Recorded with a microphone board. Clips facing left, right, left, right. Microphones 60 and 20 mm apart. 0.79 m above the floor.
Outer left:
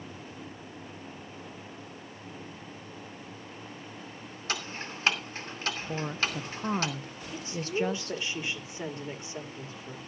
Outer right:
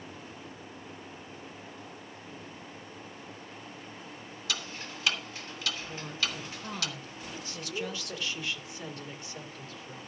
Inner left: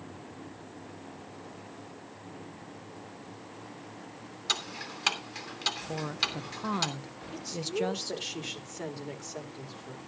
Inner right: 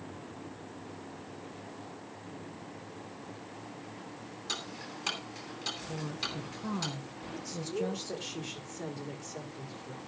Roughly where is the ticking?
Left.